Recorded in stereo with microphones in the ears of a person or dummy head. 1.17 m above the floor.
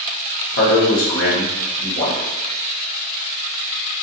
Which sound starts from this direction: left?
A man speaking, at 0.6 s.